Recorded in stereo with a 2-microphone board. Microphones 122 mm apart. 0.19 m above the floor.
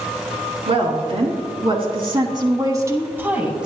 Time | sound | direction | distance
0.7 | a woman speaking | 55° right (ahead or behind) | 2.5 m